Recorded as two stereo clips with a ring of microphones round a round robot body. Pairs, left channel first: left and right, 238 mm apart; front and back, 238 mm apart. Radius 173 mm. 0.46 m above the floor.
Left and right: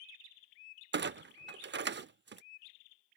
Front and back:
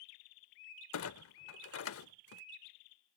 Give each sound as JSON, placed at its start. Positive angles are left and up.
{"t": 0.9, "sound": "a clunk", "azimuth_deg": -40}